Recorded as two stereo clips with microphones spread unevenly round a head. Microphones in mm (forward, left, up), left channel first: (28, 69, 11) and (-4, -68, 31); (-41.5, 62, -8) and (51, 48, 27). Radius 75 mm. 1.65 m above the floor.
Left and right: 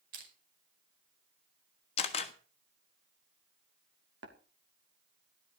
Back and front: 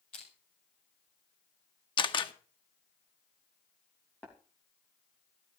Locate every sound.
0.1 s crushing: 135° right, 5 m
2.0 s a camera shutter: 130° left, 1.4 m
4.2 s tapping: 105° right, 3 m